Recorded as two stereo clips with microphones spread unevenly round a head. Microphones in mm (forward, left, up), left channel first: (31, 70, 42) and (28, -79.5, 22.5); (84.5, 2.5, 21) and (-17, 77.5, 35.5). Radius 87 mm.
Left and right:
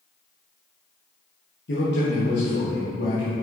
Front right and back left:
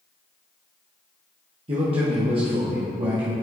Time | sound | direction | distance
1.7 | a man speaking | 105° left | 1.5 m